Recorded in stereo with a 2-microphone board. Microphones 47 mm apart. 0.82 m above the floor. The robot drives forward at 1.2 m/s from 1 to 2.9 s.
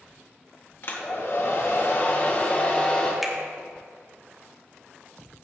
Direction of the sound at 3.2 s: Centre (ahead or behind).